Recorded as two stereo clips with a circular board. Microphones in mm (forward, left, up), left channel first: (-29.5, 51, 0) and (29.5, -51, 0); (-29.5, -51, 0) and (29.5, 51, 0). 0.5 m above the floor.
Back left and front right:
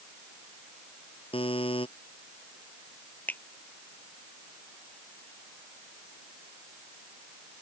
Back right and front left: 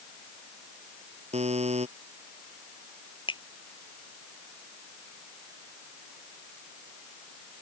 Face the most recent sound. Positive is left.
turn(degrees=-165)